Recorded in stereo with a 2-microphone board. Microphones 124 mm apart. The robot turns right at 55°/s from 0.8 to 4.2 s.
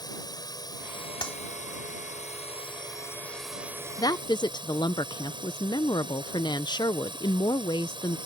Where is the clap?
40° left (ahead or behind); by 1.4 s 45° left (ahead or behind).